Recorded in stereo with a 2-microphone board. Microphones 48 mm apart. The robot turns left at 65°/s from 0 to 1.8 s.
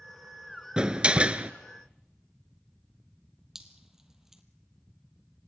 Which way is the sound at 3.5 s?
10° right (ahead or behind).